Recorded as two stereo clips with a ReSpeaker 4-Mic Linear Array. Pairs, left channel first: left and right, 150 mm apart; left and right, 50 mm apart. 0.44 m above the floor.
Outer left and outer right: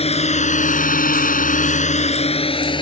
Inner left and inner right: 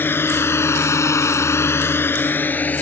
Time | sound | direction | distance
0.0 | a drone | 45° left (ahead or behind) | ?